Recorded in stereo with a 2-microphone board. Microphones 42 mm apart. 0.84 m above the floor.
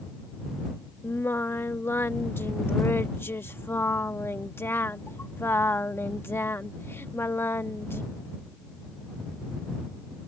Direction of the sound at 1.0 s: 70° left (ahead or behind).